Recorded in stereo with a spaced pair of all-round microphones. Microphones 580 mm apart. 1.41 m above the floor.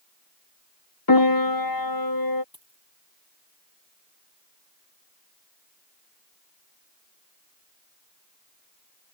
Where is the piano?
35° left (ahead or behind).